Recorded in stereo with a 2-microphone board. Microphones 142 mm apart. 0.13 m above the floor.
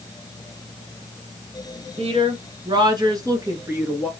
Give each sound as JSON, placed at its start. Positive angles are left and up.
{"t": 2.0, "sound": "a woman speaking", "side_deg": -45, "distance_m": 1.4}